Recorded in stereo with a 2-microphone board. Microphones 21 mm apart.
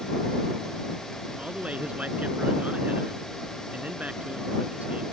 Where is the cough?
No cough in this recording.